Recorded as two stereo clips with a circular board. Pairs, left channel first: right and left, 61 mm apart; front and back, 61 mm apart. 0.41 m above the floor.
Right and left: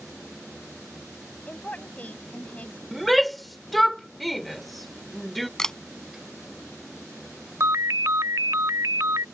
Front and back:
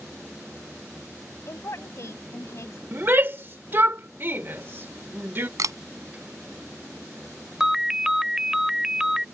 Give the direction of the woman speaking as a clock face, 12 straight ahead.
1 o'clock.